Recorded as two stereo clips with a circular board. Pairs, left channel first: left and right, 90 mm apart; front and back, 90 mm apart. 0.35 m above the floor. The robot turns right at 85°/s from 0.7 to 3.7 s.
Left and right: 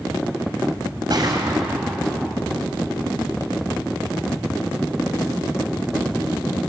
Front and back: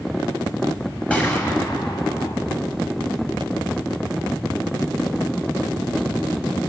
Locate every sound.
1.1 s a gunshot: 70° right, 2.5 m; by 2.3 s 35° left, 2.5 m